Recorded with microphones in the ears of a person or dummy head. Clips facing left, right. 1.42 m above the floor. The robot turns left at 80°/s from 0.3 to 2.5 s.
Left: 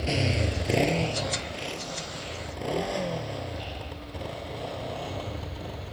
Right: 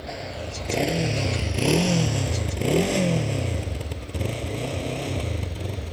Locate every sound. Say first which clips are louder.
0.0 s a motorcycle: left 5 dB; 40° left (ahead or behind); by 5.9 s 35° right (ahead or behind)